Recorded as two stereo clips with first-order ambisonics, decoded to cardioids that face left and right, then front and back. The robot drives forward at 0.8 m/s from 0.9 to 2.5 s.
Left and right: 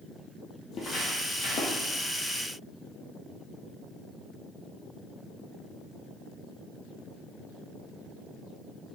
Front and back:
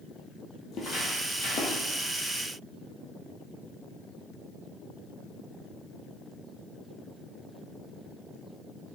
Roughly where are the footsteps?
Ahead left.